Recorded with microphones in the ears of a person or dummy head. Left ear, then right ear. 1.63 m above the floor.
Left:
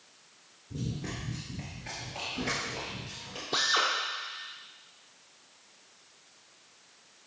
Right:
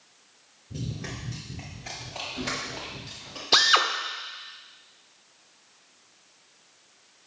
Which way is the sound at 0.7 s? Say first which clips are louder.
Right 1 dB; 20° right (ahead or behind).